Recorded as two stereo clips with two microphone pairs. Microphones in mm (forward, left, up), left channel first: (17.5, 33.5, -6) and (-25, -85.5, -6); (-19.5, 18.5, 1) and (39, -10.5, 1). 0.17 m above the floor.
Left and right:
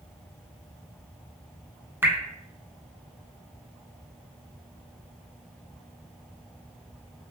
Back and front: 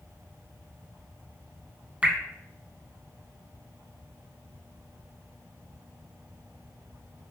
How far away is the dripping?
About 0.6 m.